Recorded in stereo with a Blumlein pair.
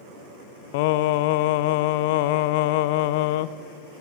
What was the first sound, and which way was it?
Singing, 50° left.